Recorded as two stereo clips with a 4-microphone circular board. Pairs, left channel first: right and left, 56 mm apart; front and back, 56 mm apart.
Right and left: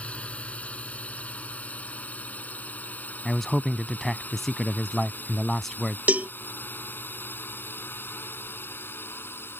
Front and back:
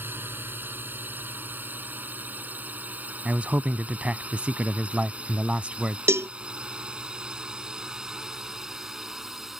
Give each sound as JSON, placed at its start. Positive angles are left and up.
{"t": 0.0, "sound": "a drone", "azimuth_deg": -145}
{"t": 3.2, "sound": "a man speaking", "azimuth_deg": -170}
{"t": 6.1, "sound": "a cowbell", "azimuth_deg": 150}